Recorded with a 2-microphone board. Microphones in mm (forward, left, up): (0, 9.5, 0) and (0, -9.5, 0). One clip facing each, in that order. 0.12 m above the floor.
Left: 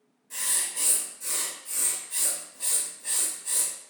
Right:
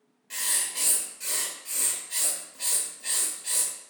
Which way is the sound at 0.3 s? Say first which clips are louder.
Right 1 dB; 45° right (ahead or behind).